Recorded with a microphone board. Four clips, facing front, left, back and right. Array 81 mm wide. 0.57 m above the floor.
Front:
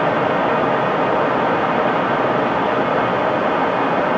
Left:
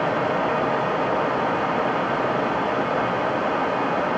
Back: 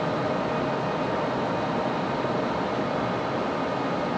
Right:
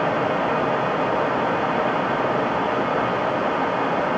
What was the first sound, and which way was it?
Only background noise.